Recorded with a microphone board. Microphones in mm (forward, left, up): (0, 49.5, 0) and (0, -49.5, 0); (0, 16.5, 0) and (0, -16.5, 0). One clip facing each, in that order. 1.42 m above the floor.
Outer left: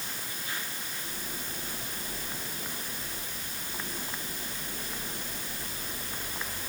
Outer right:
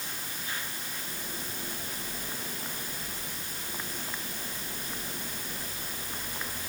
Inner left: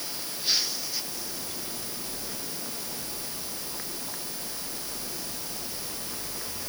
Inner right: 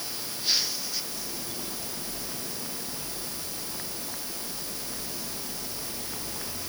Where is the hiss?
I don't hear a hiss.